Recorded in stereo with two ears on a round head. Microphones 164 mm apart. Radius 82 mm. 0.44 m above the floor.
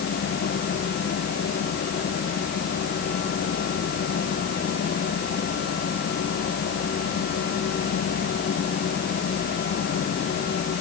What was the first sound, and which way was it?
Only background noise.